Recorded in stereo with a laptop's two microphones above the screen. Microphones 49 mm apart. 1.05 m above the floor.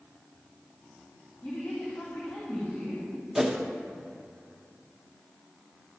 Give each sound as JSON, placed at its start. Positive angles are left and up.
{"t": 1.4, "sound": "a woman speaking", "side_deg": 45, "distance_m": 3.0}
{"t": 3.4, "sound": "a whoosh", "side_deg": -10, "distance_m": 0.9}